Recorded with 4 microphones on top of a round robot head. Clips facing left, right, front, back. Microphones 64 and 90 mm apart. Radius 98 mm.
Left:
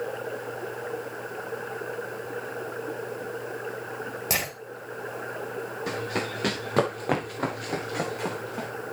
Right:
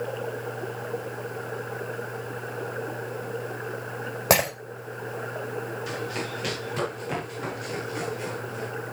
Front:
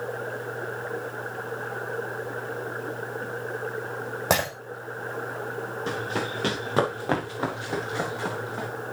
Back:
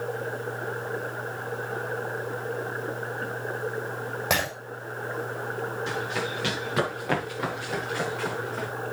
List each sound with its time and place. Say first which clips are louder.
4.3 s breaking glass: right 10 dB, front 3 dB; 60° right, 5 m
5.9 s running footsteps: left 1 dB, front 1 dB; 50° left, 4 m; by 8.7 s 70° left, 5 m